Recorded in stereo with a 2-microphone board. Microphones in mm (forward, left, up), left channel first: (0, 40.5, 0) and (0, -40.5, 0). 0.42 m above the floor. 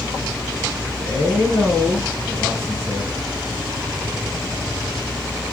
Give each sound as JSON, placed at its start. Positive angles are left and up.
{"t": 1.0, "sound": "a man speaking", "side_deg": 15, "distance_m": 7.5}